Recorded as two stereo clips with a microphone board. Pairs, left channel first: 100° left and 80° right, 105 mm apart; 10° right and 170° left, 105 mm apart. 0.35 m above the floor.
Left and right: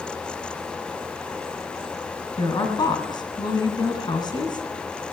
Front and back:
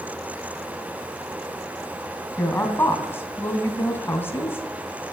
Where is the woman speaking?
55° left, 2.5 m.